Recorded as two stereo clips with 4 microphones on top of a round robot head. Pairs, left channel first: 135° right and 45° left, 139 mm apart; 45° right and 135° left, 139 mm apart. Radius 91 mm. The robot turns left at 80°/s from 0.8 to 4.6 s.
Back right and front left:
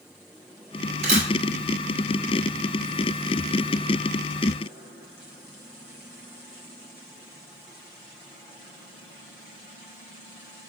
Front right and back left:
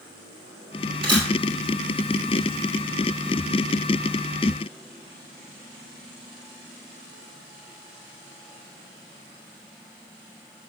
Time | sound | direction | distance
1.0 | a camera shutter | 85° left | 1.4 m